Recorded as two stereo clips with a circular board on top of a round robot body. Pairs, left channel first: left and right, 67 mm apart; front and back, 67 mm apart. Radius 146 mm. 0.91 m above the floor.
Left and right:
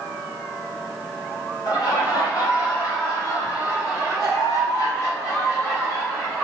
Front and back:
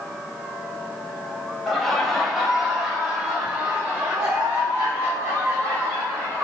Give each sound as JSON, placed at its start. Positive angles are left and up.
{"t": 1.7, "sound": "laughter", "azimuth_deg": 85, "distance_m": 2.5}